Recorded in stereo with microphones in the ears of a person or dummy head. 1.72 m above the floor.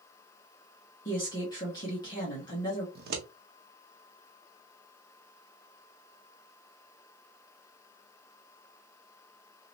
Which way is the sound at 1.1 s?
20° left (ahead or behind).